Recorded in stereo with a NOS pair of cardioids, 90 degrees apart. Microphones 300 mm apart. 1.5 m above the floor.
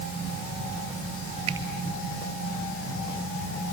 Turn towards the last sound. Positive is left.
turn(degrees=-55)